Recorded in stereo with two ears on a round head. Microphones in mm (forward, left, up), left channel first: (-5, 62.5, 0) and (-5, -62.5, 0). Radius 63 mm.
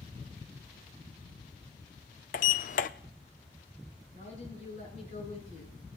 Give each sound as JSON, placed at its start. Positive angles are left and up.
{"t": 2.3, "sound": "a sliding door", "side_deg": 60, "distance_m": 0.5}
{"t": 4.1, "sound": "a woman speaking", "side_deg": 55, "distance_m": 9.5}